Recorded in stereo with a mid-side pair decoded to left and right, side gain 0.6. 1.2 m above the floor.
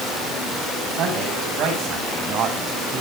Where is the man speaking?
65° right, 7.5 m; by 3.0 s 50° right, 7.5 m.